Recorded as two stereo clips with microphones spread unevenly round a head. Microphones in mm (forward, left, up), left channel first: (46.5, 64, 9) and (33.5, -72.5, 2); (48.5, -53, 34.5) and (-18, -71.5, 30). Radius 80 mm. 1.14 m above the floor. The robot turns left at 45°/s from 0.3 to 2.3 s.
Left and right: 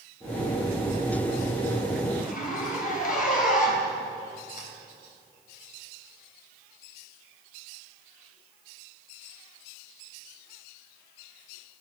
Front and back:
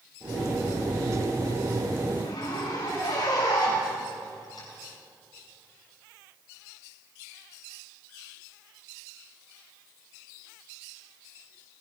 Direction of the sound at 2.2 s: 70° left.